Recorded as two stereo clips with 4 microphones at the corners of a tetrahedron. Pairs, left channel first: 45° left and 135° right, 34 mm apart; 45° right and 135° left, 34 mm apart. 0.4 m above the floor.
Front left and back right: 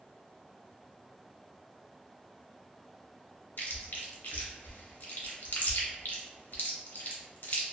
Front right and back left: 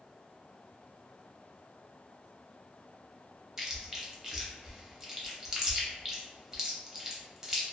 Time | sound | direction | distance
3.6 | chewing | 60° left | 0.6 m